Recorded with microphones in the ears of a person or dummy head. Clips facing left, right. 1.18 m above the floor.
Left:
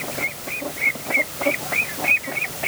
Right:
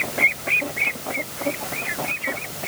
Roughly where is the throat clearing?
No throat clearing in this recording.